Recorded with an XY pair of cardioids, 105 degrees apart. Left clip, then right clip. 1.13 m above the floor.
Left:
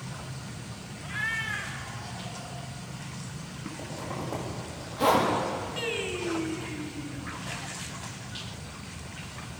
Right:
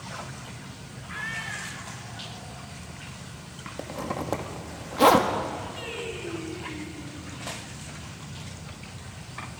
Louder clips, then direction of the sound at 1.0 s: Left 3 dB; 20° left.